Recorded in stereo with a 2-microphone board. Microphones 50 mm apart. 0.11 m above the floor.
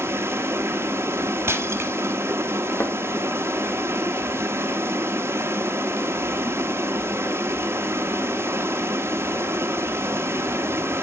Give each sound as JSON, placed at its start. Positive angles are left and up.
{"t": 0.0, "sound": "running water", "side_deg": -60, "distance_m": 0.8}
{"t": 1.5, "sound": "breaking glass", "side_deg": -60, "distance_m": 1.2}
{"t": 2.8, "sound": "a thud", "side_deg": 65, "distance_m": 1.4}